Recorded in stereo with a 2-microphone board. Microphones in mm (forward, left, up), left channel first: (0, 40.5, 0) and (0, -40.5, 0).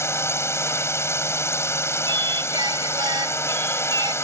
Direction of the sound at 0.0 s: 30° left (ahead or behind).